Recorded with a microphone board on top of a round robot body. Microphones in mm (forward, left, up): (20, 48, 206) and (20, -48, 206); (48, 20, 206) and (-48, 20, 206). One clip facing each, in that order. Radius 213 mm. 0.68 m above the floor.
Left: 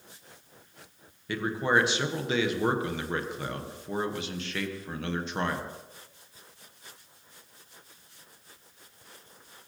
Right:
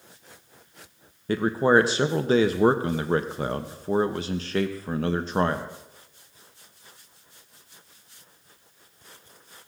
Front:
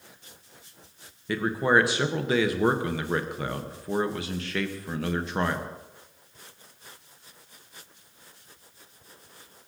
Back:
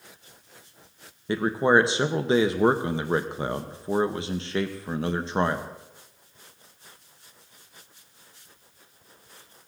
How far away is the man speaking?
About 1.0 m.